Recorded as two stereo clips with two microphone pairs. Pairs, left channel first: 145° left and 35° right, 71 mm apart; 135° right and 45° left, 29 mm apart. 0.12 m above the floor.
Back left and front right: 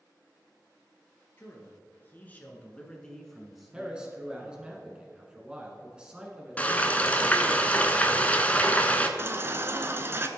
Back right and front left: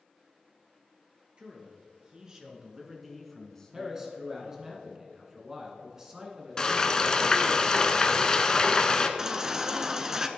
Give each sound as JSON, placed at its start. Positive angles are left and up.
{"t": 1.4, "sound": "a man speaking", "azimuth_deg": 95, "distance_m": 2.5}
{"t": 3.7, "sound": "a man speaking", "azimuth_deg": 25, "distance_m": 1.2}
{"t": 6.6, "sound": "frying", "azimuth_deg": -175, "distance_m": 0.7}
{"t": 9.2, "sound": "a baby crying", "azimuth_deg": -5, "distance_m": 0.6}